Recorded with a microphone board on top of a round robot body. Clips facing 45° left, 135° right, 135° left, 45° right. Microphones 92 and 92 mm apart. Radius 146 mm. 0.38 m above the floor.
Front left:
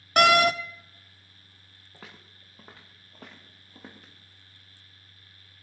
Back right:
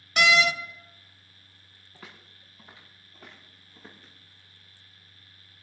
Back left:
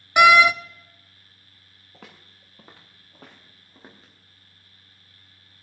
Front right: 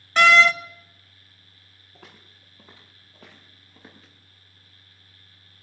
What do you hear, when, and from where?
0.2 s a door slam: 60° left, 0.9 m
1.9 s footsteps: 115° left, 4 m; by 4.1 s 65° left, 4.5 m